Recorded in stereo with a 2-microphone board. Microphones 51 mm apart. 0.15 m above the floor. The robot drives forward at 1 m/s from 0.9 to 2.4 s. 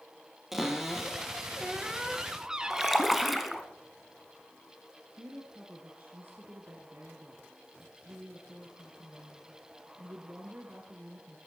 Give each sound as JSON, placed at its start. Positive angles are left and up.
{"t": 0.5, "sound": "a cupboard door", "side_deg": -5, "distance_m": 1.9}
{"t": 2.7, "sound": "a splash", "side_deg": 0, "distance_m": 1.0}
{"t": 5.2, "sound": "a woman speaking", "side_deg": -45, "distance_m": 2.5}